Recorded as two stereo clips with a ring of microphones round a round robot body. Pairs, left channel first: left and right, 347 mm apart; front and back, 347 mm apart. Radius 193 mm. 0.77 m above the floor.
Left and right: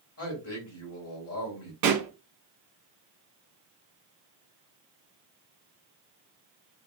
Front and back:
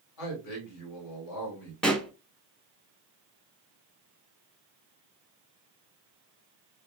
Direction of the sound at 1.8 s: 85° right.